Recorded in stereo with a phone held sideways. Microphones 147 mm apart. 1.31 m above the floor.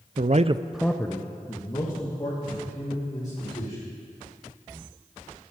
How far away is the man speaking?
About 0.7 m.